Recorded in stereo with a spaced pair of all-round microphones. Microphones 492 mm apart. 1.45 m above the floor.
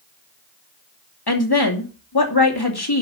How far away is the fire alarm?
No fire alarm in this recording.